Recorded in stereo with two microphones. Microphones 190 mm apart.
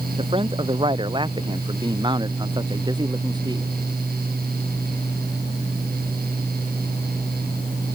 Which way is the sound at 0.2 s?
30° right (ahead or behind).